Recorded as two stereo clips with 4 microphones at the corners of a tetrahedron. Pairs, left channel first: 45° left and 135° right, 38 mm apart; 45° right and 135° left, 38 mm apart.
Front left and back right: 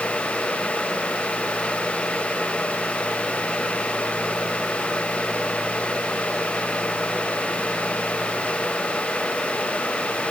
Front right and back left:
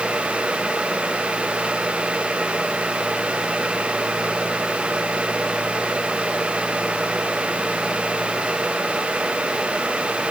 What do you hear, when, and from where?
Only background noise.